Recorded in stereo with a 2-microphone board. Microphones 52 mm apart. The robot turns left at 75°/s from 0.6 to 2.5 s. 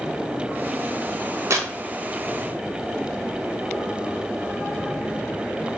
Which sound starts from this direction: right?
Tearing paper, at 1.5 s.